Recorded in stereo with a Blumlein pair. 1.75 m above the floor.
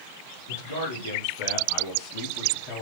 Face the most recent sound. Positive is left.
turn(degrees=40)